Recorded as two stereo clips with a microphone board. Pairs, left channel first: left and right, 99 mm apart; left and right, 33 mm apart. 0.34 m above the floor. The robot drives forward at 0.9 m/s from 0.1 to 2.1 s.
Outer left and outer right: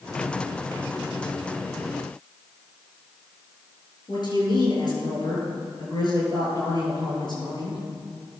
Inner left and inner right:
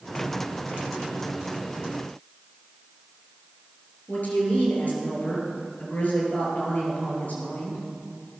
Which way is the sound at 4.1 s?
50° left (ahead or behind).